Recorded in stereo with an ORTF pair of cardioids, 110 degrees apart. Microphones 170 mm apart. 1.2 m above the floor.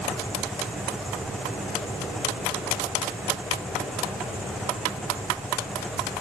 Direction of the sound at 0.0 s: Straight ahead.